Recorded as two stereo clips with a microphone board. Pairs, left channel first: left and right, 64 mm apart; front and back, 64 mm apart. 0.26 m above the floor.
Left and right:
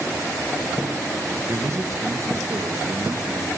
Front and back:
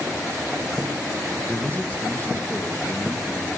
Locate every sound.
1.5 s a man speaking: 60° right, 1.7 m